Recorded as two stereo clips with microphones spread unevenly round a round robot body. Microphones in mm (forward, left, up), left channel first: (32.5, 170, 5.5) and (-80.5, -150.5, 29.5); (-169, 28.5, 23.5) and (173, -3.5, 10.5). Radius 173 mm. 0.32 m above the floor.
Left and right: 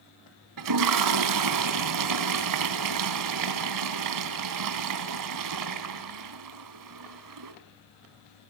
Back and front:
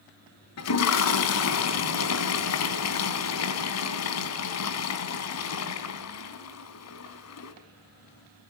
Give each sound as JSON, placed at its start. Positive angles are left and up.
{"t": 0.6, "sound": "a toilet flushing", "azimuth_deg": -140, "distance_m": 3.5}